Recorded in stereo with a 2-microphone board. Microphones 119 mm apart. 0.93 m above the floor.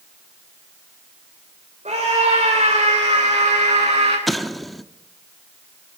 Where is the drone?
I don't hear a drone.